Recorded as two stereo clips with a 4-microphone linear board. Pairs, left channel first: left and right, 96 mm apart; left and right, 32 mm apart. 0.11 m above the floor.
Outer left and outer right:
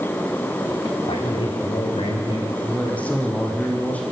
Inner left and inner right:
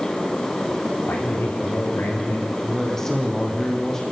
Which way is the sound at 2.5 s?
15° left (ahead or behind).